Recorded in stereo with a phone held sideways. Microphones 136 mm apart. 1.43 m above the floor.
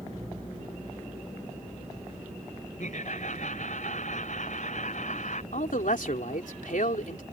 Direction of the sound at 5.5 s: 75° left (ahead or behind).